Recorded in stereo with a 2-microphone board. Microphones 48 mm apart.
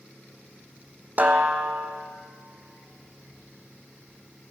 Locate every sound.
1.2 s a snare drum: 40° right (ahead or behind), 1.0 m